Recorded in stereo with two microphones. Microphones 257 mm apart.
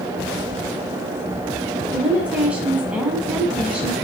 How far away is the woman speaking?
About 1.4 m.